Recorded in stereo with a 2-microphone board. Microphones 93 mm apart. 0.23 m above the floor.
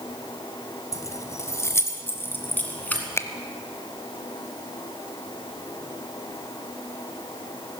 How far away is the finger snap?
About 0.8 m.